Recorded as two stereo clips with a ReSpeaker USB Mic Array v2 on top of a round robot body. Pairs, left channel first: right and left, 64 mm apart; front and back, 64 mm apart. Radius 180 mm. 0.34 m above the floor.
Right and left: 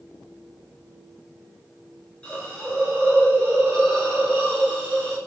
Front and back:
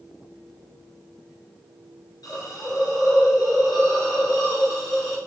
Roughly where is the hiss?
Ahead.